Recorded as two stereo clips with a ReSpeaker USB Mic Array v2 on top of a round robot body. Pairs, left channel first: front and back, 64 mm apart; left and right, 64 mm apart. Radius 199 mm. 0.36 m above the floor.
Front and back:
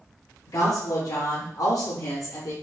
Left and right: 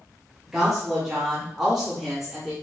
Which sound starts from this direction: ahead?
A woman speaking, at 0.5 s.